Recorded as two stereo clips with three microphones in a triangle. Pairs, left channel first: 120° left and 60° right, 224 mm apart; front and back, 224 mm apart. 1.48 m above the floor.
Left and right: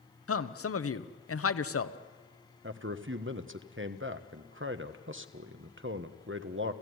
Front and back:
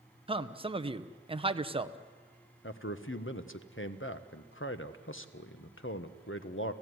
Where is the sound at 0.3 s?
115° left, 0.9 m.